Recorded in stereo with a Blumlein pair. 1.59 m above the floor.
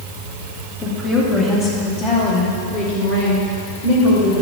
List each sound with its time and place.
0.8 s a woman speaking: 10° left, 2 m; by 4.4 s 60° left, 4.5 m